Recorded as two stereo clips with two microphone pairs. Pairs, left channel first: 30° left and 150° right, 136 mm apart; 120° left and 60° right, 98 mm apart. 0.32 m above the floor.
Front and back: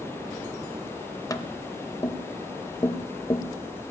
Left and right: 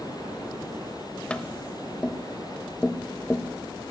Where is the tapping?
55° left, 0.8 m.